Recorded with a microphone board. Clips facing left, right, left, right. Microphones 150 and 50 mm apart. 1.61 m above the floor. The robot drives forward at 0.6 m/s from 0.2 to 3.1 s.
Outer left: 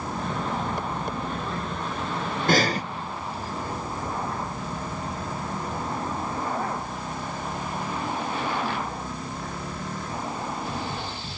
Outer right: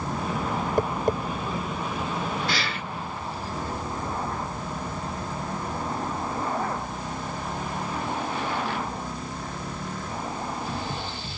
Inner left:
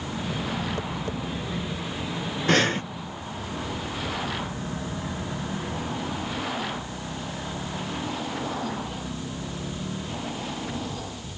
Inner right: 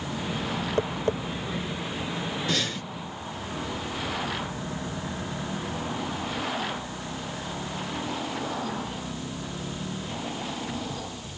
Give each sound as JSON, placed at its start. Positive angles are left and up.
{"t": 0.8, "sound": "tapping", "side_deg": -45}
{"t": 2.5, "sound": "breathing", "side_deg": 45}